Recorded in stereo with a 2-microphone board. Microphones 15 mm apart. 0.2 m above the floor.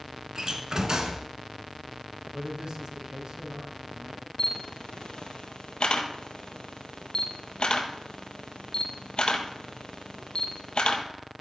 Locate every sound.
0.3 s a door slam: 40° right (ahead or behind), 1.6 m
2.3 s a man speaking: 60° right (ahead or behind), 3 m
4.4 s a camera shutter: 65° left (ahead or behind), 1.5 m